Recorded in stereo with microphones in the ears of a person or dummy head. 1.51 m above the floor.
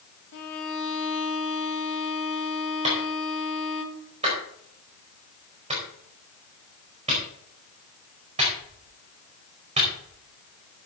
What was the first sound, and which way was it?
A violin, 65° left (ahead or behind).